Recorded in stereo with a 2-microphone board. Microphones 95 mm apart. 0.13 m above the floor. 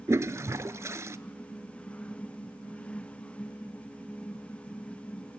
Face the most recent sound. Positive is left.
turn(degrees=-30)  # may be behind; listen again after turning